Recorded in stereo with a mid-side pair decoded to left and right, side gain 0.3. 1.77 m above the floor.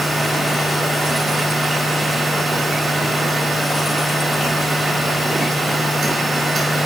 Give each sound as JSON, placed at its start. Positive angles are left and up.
{"t": 0.0, "sound": "a machine running", "azimuth_deg": -50, "distance_m": 2.5}